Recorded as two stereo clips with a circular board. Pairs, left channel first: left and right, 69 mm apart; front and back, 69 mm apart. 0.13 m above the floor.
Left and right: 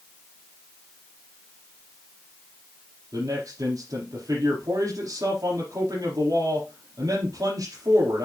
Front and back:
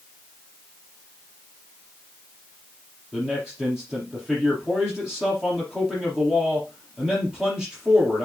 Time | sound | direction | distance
3.1 | a man speaking | 100° right | 4.5 m